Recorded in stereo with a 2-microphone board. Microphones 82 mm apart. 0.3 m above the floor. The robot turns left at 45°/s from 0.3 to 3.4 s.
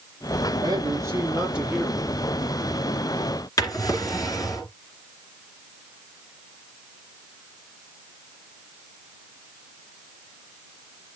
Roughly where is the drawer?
Left.